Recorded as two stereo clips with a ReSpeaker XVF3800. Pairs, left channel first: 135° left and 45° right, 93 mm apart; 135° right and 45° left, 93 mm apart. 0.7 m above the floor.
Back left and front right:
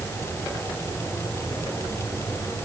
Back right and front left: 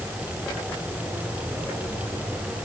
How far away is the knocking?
No knocking in this recording.